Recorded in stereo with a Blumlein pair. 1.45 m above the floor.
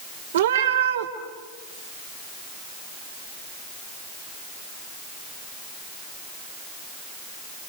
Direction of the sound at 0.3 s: 60° right.